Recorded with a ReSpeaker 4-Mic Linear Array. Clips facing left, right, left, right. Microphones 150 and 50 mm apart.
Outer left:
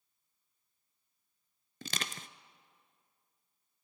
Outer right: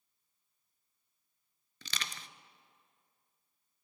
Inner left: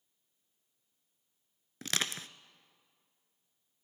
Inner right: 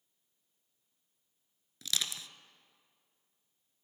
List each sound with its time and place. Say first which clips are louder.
1.8 s crushing: outer left 4 dB, inner left 2 dB; 45° left (ahead or behind), 0.5 m